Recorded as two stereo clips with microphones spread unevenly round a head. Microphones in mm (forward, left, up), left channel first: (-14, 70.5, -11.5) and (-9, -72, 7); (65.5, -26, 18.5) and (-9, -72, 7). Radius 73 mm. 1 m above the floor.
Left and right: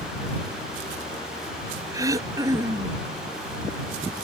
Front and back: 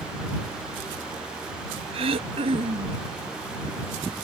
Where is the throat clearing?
155° right.